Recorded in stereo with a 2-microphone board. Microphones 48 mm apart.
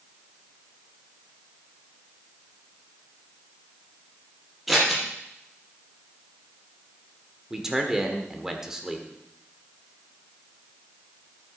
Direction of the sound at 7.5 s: 10° right (ahead or behind).